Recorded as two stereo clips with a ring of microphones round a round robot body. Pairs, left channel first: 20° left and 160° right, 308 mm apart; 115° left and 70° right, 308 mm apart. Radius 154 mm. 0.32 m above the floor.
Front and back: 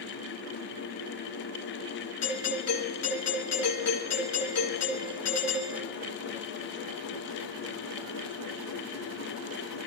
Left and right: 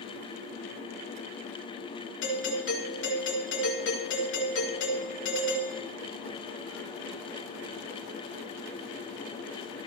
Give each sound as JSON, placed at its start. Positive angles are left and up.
{"t": 2.2, "sound": "a doorbell", "azimuth_deg": 60, "distance_m": 5.5}